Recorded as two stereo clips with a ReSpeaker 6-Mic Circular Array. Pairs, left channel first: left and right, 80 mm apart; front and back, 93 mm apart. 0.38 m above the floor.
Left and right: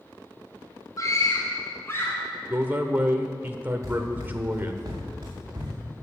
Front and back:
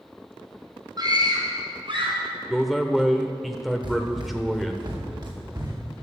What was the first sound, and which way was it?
A scream, 140° left.